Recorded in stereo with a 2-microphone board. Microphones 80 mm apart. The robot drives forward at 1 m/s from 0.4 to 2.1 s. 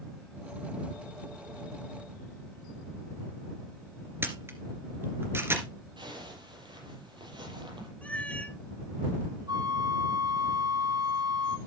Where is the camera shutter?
25° right (ahead or behind), 2.5 m.